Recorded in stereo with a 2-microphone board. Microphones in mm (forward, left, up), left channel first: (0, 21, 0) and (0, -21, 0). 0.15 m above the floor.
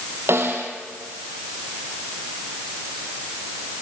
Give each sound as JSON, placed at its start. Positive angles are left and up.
{"t": 0.3, "sound": "a snare drum", "side_deg": -75, "distance_m": 3.0}